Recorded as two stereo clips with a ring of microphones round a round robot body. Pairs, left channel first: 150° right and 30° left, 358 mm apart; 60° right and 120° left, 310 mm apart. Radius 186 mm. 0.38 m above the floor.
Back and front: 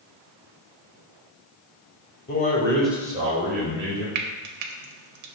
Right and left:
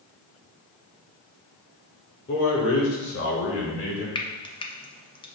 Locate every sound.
2.3 s a man speaking: 100° right, 1.0 m; by 4.0 s 20° right, 1.4 m
4.2 s frying: 15° left, 0.5 m